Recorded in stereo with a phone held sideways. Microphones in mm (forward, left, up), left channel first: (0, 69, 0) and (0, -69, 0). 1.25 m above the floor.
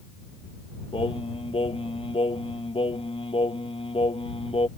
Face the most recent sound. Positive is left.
turn(degrees=40)  # may be behind; listen again after turning